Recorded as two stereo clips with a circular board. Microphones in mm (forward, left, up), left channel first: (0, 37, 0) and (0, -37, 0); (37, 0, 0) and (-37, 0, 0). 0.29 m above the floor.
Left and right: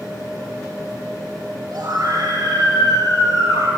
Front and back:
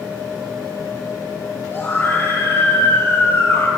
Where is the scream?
60° right, 6.5 m; by 3.7 s 55° right, 8 m.